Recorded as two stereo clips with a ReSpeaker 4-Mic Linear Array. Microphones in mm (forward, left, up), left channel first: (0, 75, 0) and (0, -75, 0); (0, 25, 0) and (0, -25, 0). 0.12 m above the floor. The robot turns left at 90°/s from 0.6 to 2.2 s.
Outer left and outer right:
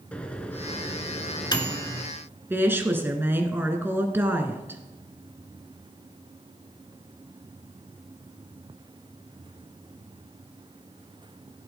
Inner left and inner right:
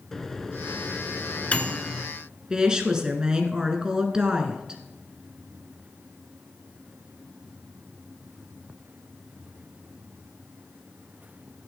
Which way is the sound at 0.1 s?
10° left (ahead or behind).